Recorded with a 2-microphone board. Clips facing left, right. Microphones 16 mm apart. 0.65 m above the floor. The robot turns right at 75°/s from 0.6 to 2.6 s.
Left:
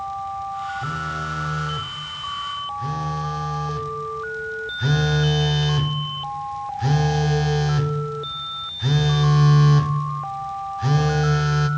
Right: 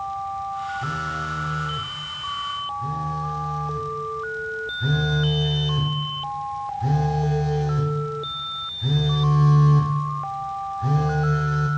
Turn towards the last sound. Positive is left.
turn(degrees=105)